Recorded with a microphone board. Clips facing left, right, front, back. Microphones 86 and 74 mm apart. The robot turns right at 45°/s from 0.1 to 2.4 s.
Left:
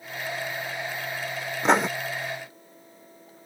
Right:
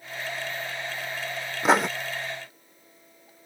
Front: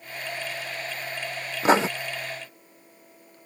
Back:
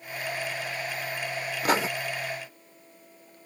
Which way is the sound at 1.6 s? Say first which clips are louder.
Even, front 6 dB; 10° right.